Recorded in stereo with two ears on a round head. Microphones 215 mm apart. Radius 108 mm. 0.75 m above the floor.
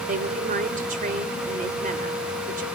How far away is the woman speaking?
About 3 m.